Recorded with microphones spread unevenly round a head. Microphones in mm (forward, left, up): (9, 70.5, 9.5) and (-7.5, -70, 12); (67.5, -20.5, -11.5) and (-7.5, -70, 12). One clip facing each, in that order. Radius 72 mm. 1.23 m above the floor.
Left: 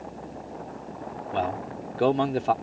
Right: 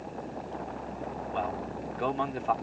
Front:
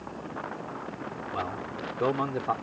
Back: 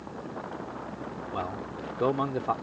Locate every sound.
1.3 s a man speaking: 130° left